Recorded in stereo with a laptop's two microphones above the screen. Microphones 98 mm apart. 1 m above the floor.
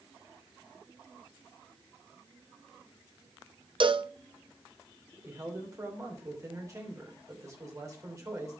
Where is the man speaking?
30° right (ahead or behind), 3 m.